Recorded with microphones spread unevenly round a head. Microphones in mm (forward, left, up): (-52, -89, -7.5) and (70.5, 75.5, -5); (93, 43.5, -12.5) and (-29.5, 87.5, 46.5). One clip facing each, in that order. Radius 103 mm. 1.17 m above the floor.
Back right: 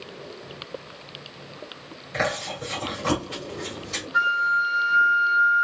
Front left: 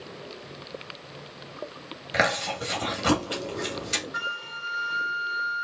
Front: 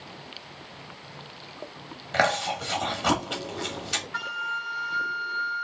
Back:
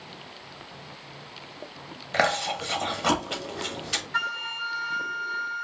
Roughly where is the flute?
Behind left.